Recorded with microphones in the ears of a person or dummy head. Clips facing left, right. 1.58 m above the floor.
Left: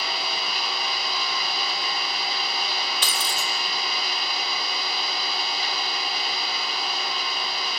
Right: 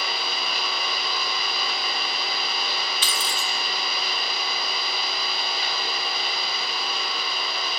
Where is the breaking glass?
35° left (ahead or behind), 2.5 m.